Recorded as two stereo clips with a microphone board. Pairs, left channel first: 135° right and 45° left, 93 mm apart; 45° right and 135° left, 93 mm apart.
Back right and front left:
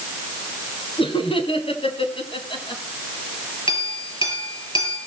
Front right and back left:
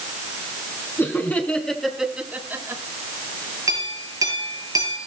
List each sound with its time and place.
1.0 s laughter: 110° right, 3 m; by 2.8 s 165° right, 3 m
3.7 s a clink: 170° right, 6 m